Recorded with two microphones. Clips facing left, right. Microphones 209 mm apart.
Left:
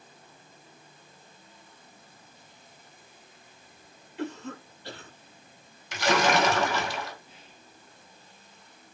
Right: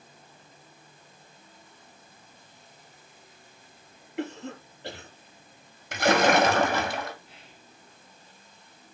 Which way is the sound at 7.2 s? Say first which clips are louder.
Even; 75° right (ahead or behind).